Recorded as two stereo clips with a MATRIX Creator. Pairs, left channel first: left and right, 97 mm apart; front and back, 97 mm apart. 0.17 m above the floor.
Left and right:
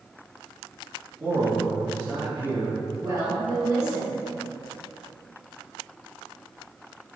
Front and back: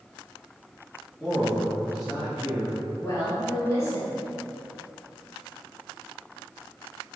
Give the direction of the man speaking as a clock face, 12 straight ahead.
2 o'clock.